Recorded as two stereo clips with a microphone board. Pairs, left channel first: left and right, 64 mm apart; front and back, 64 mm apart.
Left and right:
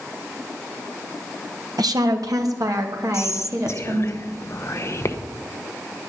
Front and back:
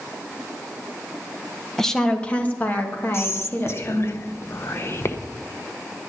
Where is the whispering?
45° left, 0.9 m.